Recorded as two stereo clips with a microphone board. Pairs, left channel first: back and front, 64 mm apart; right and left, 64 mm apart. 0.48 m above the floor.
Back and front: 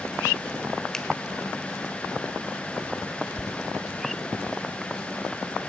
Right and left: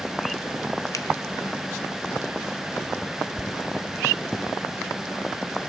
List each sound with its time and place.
0.9 s a finger snap: 100° right, 1.4 m